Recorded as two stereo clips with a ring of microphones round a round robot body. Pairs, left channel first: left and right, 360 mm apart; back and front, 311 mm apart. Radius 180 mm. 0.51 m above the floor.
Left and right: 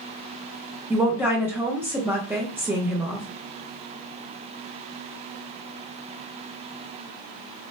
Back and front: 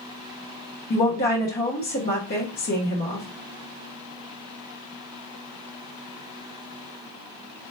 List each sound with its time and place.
0.9 s a woman speaking: 170° right, 0.9 m